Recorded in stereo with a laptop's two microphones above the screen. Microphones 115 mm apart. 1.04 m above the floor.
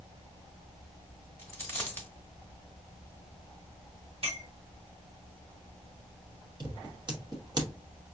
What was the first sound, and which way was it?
A dropped coin, 20° left (ahead or behind).